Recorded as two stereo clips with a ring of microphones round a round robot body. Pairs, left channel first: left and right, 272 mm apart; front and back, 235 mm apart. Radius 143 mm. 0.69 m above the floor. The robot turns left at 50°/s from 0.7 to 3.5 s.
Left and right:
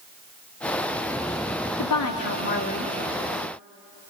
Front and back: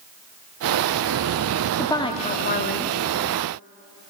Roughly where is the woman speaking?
Left.